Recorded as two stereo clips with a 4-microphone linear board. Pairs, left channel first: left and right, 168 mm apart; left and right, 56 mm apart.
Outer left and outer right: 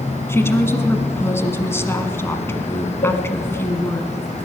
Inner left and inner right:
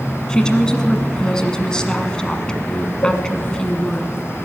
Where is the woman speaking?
15° left (ahead or behind), 1.2 m.